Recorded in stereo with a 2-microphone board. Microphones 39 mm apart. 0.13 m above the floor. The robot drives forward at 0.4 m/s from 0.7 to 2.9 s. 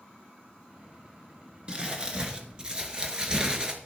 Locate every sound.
1.7 s crumpling: 30° right (ahead or behind), 1.9 m; by 3.8 s 25° right (ahead or behind), 2 m